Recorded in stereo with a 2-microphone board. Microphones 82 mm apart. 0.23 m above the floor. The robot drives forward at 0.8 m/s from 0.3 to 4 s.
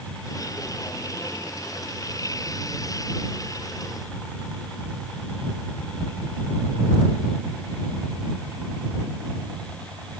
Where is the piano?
I don't hear a piano.